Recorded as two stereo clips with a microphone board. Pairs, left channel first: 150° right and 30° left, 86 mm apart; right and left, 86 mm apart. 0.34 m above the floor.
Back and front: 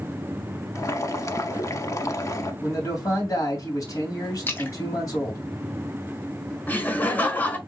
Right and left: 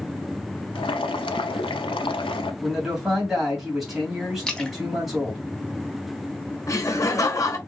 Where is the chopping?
No chopping in this recording.